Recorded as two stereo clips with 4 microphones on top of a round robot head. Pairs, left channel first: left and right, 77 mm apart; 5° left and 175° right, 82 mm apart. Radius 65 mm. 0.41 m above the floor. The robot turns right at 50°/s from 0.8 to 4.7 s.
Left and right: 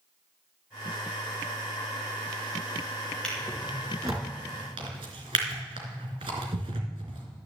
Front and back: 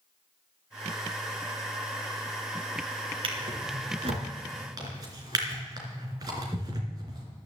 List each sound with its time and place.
3.2 s a drawer: 170° left, 3 m; by 7.2 s 115° right, 3 m